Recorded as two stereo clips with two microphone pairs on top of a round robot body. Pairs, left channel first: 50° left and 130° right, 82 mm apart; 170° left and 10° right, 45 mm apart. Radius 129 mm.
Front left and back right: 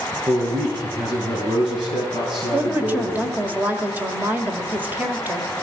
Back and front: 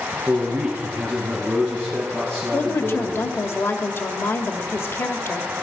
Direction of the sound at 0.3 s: 100° right.